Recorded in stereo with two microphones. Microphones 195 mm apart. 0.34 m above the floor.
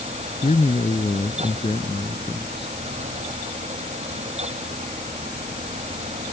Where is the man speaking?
35° left (ahead or behind); by 2.8 s 25° left (ahead or behind).